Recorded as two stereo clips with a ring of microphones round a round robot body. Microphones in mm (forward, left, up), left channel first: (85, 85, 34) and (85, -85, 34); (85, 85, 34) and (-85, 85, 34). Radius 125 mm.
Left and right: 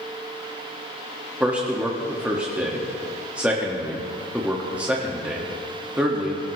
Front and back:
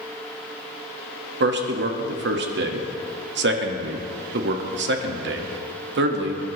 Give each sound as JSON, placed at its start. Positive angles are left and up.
{"t": 1.4, "sound": "a man speaking", "azimuth_deg": -175, "distance_m": 1.6}